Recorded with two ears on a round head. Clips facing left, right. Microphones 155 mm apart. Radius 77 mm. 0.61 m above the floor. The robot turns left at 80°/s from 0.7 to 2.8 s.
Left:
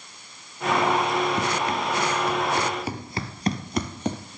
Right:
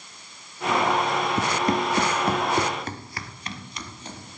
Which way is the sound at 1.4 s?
5° right (ahead or behind).